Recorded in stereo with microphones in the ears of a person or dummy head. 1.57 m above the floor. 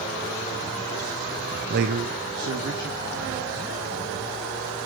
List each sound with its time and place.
1.7 s a man speaking: 35° right (ahead or behind), 0.5 m; by 4.4 s 70° right (ahead or behind), 4.5 m